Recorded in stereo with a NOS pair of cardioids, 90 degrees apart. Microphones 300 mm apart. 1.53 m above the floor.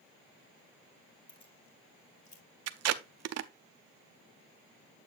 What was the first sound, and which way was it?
Keys jangling, 15° left.